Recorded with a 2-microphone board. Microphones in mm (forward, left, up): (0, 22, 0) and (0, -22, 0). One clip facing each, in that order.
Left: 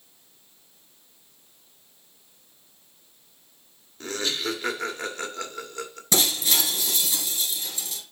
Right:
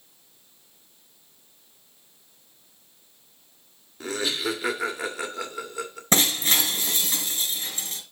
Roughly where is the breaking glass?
Right.